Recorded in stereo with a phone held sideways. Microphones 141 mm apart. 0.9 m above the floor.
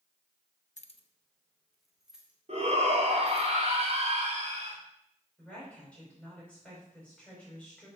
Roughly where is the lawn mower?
I don't hear a lawn mower.